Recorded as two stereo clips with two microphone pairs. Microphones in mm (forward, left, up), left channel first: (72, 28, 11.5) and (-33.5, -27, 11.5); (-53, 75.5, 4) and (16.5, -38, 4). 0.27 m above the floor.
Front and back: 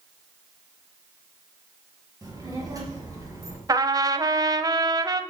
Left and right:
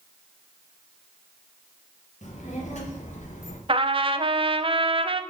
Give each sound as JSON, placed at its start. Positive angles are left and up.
{"t": 2.2, "sound": "a child speaking", "azimuth_deg": 150, "distance_m": 3.5}
{"t": 3.7, "sound": "a trumpet", "azimuth_deg": -100, "distance_m": 0.6}